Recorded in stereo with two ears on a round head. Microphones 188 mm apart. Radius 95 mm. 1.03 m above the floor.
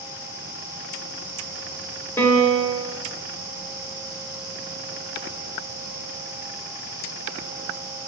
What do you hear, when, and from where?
2.2 s a piano: 15° left (ahead or behind), 1.1 m